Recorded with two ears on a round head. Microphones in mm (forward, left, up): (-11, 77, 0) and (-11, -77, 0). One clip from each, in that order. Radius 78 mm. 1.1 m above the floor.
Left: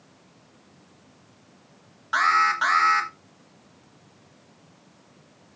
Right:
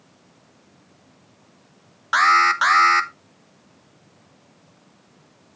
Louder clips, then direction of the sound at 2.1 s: Right 5 dB; 40° right (ahead or behind).